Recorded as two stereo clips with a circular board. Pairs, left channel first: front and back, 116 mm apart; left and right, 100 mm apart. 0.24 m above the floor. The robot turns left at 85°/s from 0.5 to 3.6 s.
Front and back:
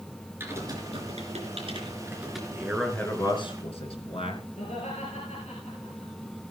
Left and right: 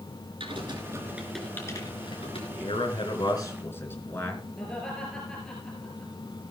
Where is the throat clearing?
I don't hear throat clearing.